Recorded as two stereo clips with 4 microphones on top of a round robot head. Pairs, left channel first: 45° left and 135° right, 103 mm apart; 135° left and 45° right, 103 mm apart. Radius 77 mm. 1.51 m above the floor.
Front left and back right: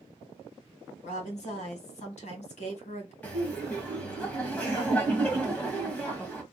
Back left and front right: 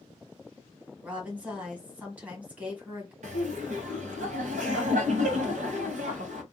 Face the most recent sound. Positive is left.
turn(degrees=-30)